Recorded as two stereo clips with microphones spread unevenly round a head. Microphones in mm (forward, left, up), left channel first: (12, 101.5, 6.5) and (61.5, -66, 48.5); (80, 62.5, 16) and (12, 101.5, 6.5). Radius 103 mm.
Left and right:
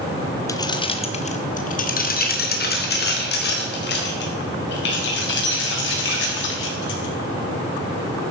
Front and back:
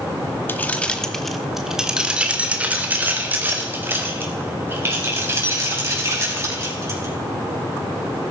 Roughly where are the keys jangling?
Ahead left.